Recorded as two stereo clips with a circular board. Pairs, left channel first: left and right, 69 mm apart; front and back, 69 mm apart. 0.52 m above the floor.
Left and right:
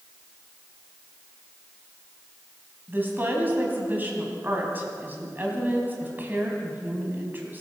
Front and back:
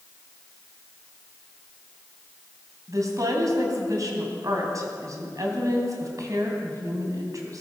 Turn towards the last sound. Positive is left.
turn(degrees=-150)